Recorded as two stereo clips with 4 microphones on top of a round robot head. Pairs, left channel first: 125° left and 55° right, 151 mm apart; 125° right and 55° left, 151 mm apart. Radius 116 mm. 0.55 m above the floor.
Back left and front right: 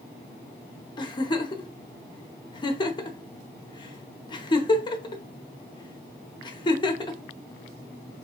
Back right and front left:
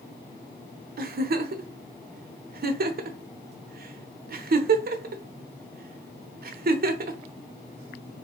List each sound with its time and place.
1.0 s a giggle: 65° left, 0.6 m